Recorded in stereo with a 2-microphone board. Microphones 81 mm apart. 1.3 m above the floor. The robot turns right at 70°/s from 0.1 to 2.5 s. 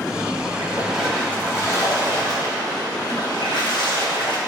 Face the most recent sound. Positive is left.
turn(degrees=100)